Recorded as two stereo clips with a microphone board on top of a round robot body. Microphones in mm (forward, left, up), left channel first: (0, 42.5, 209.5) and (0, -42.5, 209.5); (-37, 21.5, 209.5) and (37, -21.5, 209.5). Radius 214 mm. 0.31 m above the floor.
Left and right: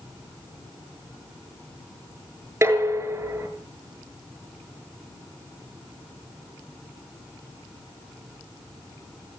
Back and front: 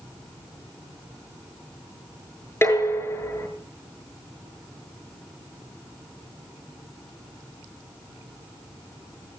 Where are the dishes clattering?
150° right, 6.5 m.